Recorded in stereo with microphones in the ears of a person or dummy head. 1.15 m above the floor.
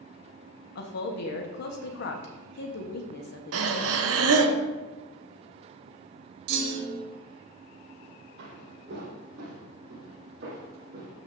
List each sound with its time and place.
0.8 s a woman speaking: 65° left (ahead or behind), 1.1 m
3.5 s breathing: 80° right, 0.9 m
6.5 s a clunk: 60° right (ahead or behind), 2 m
8.4 s footsteps: 60° right (ahead or behind), 2.5 m; by 11.2 s 40° right (ahead or behind), 3 m